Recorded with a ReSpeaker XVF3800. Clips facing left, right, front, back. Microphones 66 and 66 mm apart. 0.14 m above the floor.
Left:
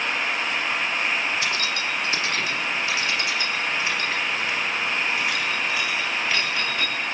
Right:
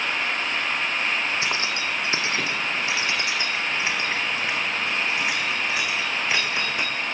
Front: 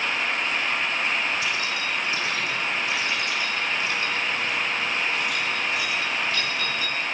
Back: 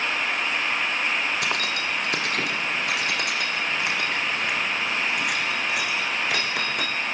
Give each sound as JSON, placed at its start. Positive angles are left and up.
{"t": 1.4, "sound": "keys jangling", "azimuth_deg": -155, "distance_m": 4.0}